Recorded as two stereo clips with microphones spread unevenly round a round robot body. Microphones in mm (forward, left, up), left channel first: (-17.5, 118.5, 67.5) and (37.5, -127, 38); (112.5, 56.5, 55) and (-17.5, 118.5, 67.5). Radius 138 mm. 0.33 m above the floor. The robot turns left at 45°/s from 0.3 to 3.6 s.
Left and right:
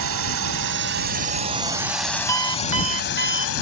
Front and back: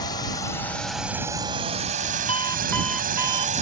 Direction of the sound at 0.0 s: 85° right.